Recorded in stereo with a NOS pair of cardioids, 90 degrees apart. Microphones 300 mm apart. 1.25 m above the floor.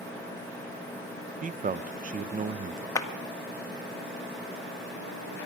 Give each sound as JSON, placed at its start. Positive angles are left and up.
{"t": 1.4, "sound": "a man speaking", "azimuth_deg": -30, "distance_m": 0.6}
{"t": 3.0, "sound": "a clap", "azimuth_deg": 10, "distance_m": 1.7}